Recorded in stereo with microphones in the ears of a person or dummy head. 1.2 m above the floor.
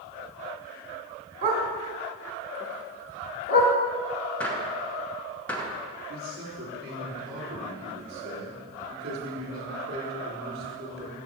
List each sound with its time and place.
1.4 s a dog barking: 45° right (ahead or behind), 1.2 m; by 3.7 s 60° left (ahead or behind), 1.3 m
4.4 s a gunshot: 10° left (ahead or behind), 0.9 m
6.1 s a man speaking: 45° right (ahead or behind), 3.5 m